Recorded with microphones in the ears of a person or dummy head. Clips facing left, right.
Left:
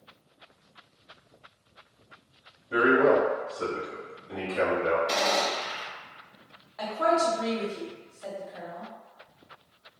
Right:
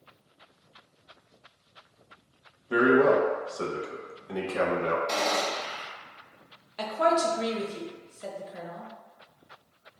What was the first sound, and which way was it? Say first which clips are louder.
A man speaking: right 1 dB; 85° right.